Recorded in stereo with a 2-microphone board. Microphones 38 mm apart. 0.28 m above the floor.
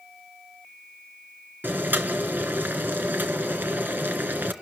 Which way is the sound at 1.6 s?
60° right (ahead or behind).